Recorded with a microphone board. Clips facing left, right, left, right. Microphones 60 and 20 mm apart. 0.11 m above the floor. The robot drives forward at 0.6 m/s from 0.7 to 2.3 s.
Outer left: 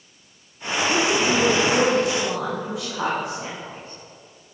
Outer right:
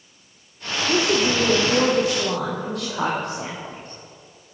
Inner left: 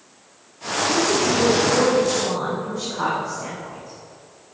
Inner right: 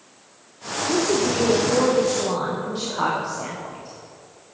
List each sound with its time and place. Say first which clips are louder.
0.9 s a woman speaking: outer right 1 dB, inner left 1 dB; 70° right (ahead or behind), 3 m; by 4.0 s 65° right (ahead or behind), 3.5 m